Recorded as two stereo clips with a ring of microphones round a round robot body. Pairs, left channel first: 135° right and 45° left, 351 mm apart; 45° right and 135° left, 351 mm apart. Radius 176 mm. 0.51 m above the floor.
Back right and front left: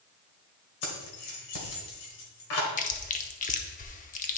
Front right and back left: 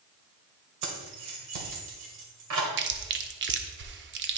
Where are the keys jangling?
175° left, 2.0 m.